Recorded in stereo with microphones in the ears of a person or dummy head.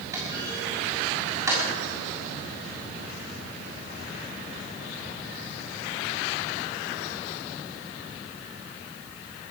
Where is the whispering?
I don't hear whispering.